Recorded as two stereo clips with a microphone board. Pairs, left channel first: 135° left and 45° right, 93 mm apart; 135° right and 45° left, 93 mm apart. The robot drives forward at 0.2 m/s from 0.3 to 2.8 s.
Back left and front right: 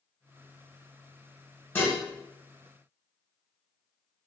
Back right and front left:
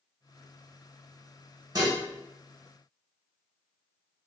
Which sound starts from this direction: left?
Dishes clattering, at 1.8 s.